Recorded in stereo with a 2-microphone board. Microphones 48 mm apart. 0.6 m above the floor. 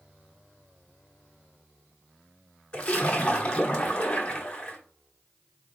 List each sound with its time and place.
2.7 s a splash: 25° left (ahead or behind), 1.1 m